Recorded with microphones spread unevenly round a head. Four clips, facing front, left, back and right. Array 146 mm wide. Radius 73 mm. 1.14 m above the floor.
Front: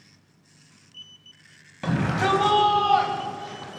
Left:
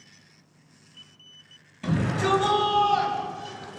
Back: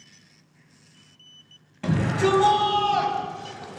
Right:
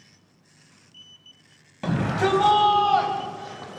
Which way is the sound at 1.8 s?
80° right.